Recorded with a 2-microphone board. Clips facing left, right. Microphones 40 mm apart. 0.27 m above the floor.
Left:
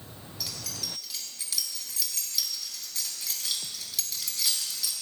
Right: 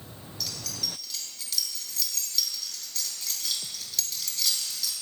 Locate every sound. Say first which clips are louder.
0.4 s keys jangling: right 2 dB; 10° left (ahead or behind), 1.7 m